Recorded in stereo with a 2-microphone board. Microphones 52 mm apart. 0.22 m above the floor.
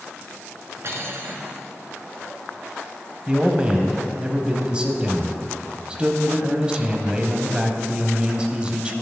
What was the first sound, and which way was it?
Cutlery clinking, 55° right (ahead or behind).